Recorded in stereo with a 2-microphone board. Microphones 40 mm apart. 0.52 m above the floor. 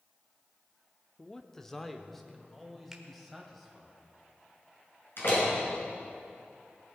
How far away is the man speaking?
About 0.6 m.